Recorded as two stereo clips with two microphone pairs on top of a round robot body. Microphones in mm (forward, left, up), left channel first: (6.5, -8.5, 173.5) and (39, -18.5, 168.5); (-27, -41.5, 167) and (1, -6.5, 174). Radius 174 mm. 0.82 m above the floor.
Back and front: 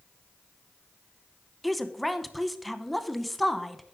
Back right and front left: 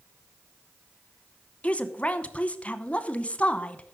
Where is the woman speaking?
95° right, 1.1 m.